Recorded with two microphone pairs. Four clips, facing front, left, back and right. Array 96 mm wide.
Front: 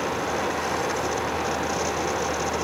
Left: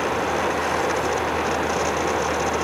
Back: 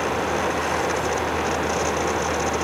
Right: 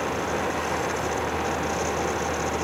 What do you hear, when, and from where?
Only background noise.